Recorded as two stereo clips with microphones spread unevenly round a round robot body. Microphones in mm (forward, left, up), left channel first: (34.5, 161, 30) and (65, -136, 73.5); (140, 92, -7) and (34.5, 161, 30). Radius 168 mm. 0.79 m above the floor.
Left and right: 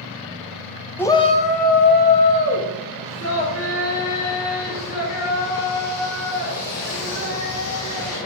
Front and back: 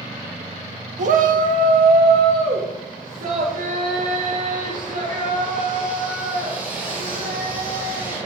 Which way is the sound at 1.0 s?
170° left.